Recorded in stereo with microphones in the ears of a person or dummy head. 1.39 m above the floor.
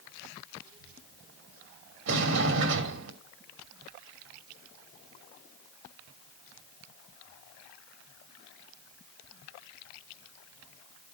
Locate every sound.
0.6 s a child speaking: 70° right (ahead or behind), 5 m; by 2.0 s 60° right (ahead or behind), 6 m
2.1 s a sliding door: 65° right (ahead or behind), 2.5 m